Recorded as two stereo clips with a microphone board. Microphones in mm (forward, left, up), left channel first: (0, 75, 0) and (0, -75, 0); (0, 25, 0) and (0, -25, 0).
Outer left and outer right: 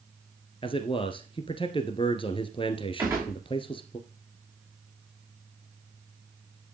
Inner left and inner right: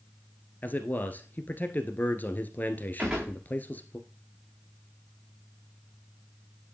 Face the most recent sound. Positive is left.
turn(degrees=-20)  # may be behind; listen again after turning